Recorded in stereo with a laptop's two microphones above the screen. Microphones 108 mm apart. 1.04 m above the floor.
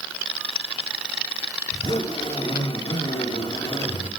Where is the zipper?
65° left (ahead or behind), 6 m.